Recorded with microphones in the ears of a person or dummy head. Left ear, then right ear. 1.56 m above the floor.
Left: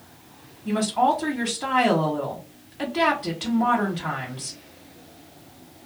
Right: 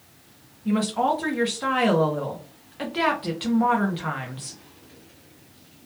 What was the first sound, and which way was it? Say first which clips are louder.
A woman speaking: left 2 dB; 5° right (ahead or behind).